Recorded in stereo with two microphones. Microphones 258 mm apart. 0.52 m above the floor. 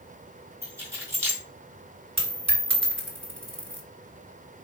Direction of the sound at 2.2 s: 50° right (ahead or behind).